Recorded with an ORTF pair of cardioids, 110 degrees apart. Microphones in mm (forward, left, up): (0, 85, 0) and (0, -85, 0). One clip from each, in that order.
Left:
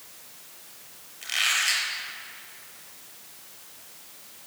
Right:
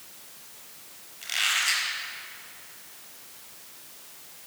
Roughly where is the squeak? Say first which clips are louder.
Left 1 dB; ahead.